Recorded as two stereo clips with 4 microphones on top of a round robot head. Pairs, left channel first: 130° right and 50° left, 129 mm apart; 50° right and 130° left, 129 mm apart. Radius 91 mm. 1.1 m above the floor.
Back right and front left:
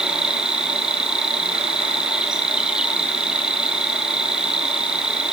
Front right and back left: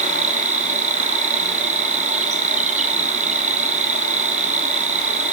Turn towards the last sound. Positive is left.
turn(degrees=130)